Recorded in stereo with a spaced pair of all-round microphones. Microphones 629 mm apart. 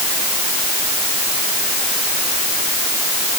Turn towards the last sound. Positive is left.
No sound to turn to.